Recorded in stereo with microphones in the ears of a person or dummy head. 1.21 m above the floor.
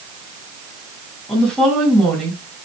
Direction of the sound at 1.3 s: 5° left (ahead or behind).